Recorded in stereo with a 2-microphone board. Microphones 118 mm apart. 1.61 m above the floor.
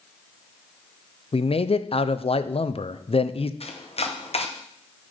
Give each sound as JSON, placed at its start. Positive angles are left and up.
{"t": 1.3, "sound": "a man speaking", "side_deg": 55, "distance_m": 0.5}
{"t": 3.6, "sound": "chopping", "side_deg": 60, "distance_m": 0.9}